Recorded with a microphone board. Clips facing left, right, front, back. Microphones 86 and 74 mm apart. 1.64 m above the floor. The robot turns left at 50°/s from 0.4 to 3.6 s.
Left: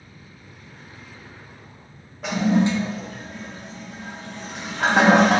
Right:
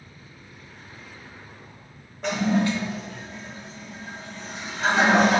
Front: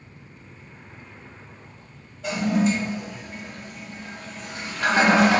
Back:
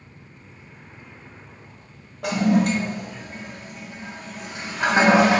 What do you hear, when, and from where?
2.2 s a toilet flushing: straight behind, 0.6 m; by 5.4 s 110° left, 0.6 m